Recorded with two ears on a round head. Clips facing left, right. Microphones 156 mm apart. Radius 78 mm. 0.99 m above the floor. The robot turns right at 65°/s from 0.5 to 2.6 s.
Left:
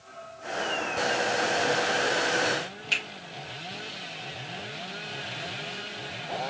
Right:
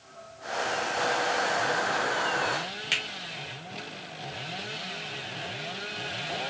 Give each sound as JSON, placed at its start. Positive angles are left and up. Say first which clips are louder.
{"t": 2.9, "sound": "a finger snap", "louder": "even", "side_deg": -15, "distance_m": 1.5}